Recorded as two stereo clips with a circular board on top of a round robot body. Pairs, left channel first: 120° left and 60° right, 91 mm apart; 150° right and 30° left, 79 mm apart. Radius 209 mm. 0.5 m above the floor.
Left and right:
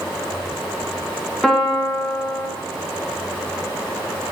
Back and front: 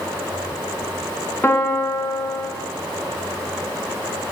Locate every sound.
1.4 s a piano: 155° right, 1.2 m